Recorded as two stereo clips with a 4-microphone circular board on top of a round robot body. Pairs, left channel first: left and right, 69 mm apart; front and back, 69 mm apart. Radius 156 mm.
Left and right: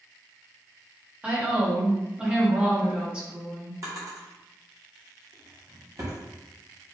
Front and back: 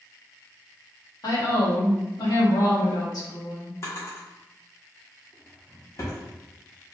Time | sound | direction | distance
1.2 | a woman speaking | 15° right | 1.8 m
3.8 | a drawer | 50° right | 1.3 m